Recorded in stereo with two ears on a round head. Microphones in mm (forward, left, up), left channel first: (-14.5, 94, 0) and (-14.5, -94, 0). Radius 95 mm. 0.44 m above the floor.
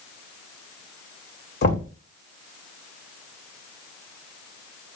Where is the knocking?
50° left (ahead or behind), 1.8 m.